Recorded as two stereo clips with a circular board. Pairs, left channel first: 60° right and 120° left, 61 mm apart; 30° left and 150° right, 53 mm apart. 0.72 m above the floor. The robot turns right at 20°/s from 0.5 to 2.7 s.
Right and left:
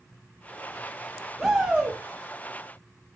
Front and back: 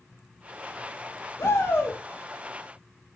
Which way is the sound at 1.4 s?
35° left.